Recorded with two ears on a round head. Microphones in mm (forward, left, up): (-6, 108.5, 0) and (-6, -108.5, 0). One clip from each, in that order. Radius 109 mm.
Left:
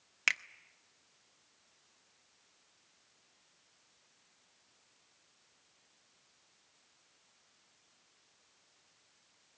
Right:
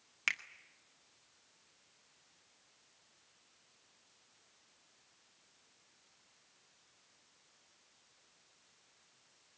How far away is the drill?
No drill in this recording.